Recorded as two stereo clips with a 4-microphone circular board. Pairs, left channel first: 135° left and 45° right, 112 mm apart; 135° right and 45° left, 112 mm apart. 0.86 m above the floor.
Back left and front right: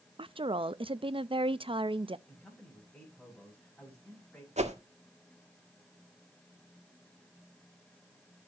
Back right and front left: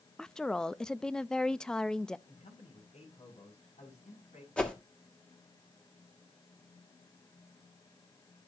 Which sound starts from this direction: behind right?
A man speaking, at 2.3 s.